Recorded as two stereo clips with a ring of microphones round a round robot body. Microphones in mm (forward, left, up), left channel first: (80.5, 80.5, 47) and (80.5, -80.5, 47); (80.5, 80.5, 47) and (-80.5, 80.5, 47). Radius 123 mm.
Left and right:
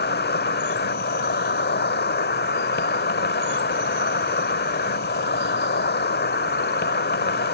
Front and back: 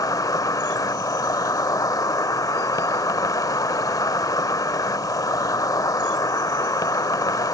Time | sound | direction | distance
0.0 | an insect | 70° left | ?